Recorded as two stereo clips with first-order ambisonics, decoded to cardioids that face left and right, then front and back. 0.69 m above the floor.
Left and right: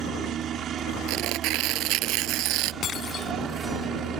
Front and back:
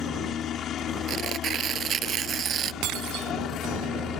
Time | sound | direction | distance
0.0 | a helicopter | 45° right | ?
1.1 | tearing paper | 125° right | ?
2.8 | breaking glass | 150° left | ?